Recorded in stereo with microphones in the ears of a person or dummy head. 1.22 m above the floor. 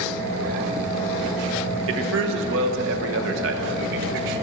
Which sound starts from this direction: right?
A man speaking, at 1.9 s.